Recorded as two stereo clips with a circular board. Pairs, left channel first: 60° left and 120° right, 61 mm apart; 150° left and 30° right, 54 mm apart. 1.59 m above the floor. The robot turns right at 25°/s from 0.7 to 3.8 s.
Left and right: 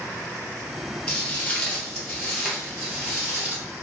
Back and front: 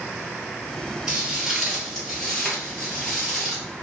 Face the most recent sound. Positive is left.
turn(degrees=-115)